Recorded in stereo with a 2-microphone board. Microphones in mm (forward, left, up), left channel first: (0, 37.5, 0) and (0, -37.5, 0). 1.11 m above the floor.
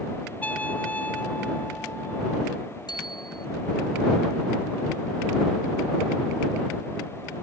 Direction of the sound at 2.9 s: 70° left (ahead or behind).